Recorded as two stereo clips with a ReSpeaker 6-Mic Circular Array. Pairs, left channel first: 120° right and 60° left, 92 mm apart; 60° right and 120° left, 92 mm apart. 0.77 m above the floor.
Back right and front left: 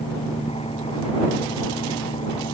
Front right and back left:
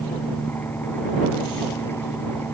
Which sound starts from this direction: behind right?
An engine running, at 0.0 s.